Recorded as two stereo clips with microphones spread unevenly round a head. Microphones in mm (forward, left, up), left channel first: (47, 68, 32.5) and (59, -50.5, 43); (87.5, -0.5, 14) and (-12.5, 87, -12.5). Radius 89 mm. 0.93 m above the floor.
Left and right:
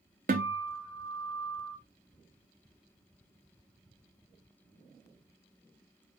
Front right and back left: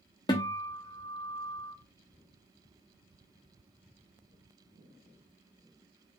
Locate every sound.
0.3 s a guitar: 105° right, 0.6 m